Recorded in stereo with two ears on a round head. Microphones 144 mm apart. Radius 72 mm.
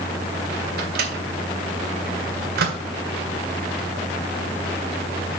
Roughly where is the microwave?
Right.